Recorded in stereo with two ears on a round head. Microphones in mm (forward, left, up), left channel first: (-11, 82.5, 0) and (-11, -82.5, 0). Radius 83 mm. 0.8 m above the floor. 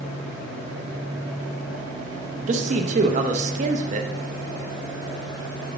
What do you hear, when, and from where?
2.5 s a man speaking: 40° right (ahead or behind), 0.6 m